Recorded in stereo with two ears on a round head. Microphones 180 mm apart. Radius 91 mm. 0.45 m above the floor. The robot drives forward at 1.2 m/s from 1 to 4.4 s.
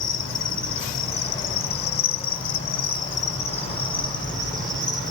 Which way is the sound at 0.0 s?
45° left (ahead or behind).